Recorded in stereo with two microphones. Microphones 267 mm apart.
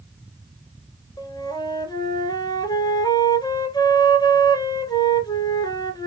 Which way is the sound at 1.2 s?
15° left (ahead or behind).